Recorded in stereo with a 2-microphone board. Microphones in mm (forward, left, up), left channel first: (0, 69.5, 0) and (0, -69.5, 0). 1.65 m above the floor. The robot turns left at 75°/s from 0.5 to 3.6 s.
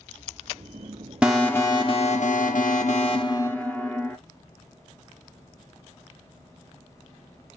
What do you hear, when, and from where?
1.2 s an alarm: 170° right, 0.9 m; by 4.2 s 10° left, 0.9 m